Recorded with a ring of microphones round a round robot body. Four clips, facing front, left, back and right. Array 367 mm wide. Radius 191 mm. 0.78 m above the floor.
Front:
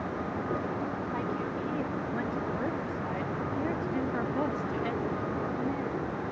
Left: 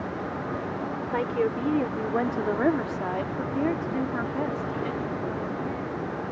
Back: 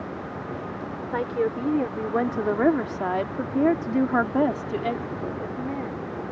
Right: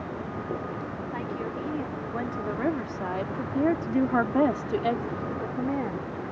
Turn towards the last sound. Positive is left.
turn(degrees=-110)